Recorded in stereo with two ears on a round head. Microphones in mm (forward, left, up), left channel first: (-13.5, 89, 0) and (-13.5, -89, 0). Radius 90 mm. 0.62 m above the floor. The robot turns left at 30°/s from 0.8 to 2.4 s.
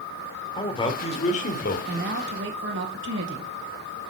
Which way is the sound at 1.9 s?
40° right (ahead or behind).